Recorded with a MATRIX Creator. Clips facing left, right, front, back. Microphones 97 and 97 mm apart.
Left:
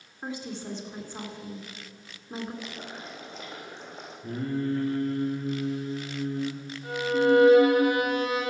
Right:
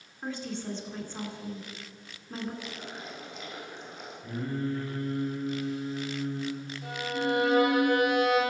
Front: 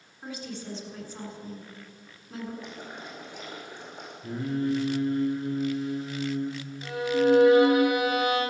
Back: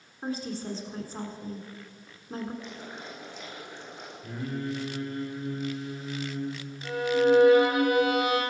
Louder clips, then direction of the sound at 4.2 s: Left 3 dB, front 5 dB; 50° left.